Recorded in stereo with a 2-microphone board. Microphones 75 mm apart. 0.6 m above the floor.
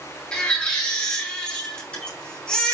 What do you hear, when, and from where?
0.3 s a baby crying: 15° left (ahead or behind), 4 m